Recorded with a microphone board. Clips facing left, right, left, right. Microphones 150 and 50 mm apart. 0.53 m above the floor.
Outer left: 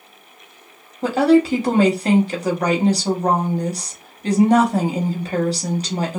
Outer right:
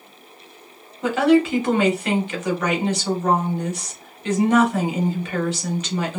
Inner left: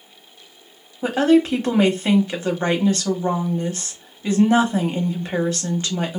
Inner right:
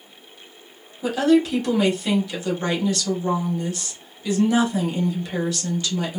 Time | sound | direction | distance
1.0 | a woman speaking | 35° left (ahead or behind) | 1.0 m